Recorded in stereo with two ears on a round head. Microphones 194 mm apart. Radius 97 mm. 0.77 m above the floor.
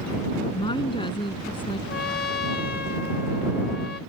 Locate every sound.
0.5 s a woman speaking: 25° left (ahead or behind)
1.9 s a trumpet: 50° left (ahead or behind)